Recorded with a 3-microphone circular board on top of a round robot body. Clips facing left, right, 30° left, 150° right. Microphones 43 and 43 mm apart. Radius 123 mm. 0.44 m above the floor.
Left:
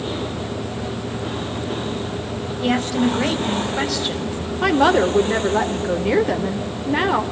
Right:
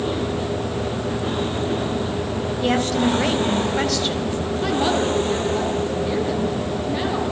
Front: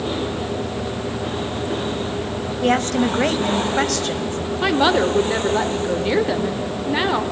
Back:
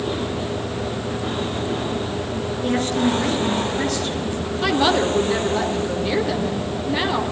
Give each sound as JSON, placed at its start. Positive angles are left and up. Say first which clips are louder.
{"t": 2.6, "sound": "a woman speaking", "louder": "left 1 dB, front 3 dB", "azimuth_deg": 5, "distance_m": 4.0}
{"t": 4.6, "sound": "a woman speaking", "louder": "left 6 dB, front 2 dB", "azimuth_deg": 100, "distance_m": 2.5}